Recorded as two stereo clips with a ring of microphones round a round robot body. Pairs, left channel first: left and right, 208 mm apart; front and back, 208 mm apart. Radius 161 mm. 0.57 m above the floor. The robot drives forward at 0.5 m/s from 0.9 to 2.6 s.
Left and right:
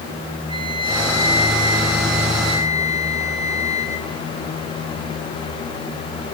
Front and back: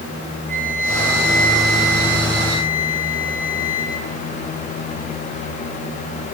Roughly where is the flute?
Behind right.